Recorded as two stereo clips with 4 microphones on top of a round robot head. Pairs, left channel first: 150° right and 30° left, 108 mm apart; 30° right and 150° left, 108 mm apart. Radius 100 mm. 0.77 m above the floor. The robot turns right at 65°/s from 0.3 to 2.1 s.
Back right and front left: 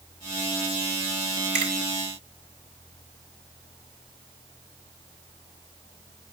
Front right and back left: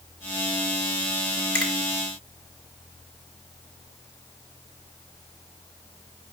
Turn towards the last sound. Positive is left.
turn(degrees=80)